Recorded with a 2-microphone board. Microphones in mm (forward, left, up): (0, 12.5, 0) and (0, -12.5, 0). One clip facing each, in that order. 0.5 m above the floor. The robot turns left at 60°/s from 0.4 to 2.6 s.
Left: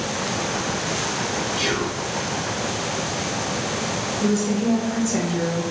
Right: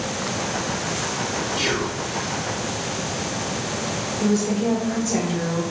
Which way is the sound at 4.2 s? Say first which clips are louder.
Right 1 dB; 30° right (ahead or behind).